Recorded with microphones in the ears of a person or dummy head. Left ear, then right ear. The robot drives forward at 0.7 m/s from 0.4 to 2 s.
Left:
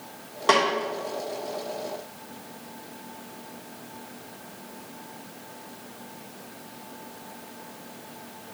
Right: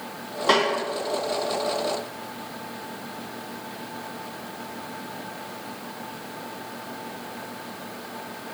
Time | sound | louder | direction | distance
0.5 | a snare drum | even | 35° left (ahead or behind) | 3 m